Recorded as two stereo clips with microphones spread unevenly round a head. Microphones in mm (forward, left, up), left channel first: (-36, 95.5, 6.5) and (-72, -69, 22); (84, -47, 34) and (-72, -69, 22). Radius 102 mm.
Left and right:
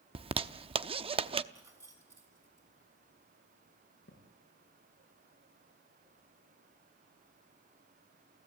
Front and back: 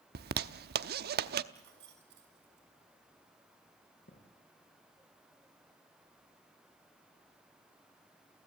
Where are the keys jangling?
175° right, 6.5 m.